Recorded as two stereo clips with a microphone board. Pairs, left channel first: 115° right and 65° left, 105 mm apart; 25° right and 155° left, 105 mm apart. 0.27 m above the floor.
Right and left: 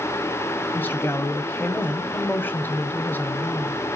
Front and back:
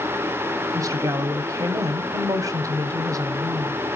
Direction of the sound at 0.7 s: 170° right.